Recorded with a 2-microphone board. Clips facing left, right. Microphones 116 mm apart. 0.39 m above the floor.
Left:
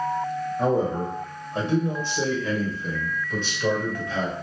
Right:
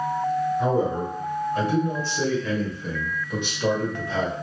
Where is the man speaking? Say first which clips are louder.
Even; 45° left (ahead or behind), 1.8 m; by 4.3 s 35° right (ahead or behind), 1.5 m.